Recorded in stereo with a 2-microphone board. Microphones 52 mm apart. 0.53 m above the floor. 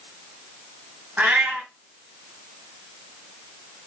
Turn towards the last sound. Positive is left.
turn(degrees=-30)  # may be behind; listen again after turning